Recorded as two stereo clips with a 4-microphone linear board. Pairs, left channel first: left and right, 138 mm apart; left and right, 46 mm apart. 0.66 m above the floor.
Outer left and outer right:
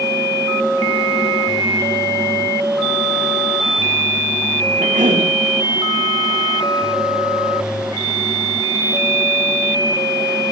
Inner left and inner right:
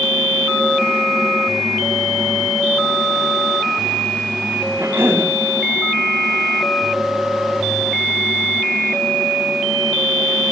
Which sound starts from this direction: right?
A cough, at 4.8 s.